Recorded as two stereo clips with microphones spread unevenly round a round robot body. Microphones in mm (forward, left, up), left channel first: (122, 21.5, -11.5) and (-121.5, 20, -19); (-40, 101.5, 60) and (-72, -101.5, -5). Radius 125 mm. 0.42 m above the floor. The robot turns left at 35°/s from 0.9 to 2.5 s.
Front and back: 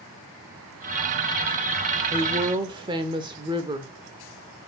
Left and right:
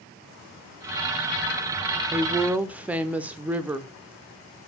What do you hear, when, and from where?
2.1 s a woman speaking: 120° right, 0.8 m; by 3.9 s 130° right, 0.8 m